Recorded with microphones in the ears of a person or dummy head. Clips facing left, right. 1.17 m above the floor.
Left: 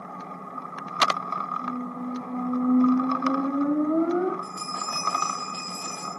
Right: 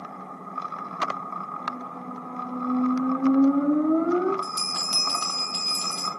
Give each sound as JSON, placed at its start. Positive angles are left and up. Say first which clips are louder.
{"t": 1.6, "sound": "a squeak", "louder": "left 8 dB", "side_deg": -35, "distance_m": 1.5}
{"t": 4.4, "sound": "a bell", "louder": "even", "side_deg": -50, "distance_m": 1.6}